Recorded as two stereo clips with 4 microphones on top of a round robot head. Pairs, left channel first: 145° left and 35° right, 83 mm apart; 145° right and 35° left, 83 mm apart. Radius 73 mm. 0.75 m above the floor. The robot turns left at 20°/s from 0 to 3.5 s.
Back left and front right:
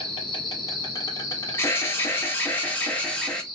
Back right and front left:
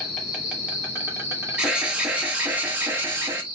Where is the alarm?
105° left, 1.2 m; by 3.5 s 70° left, 1.2 m.